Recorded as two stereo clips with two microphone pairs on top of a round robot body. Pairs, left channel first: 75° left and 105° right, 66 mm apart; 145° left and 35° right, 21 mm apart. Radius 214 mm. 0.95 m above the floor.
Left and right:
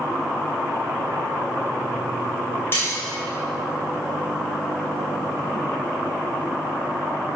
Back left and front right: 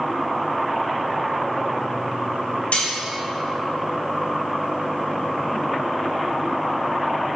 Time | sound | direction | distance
2.7 | cutlery clinking | 130° left | 4 m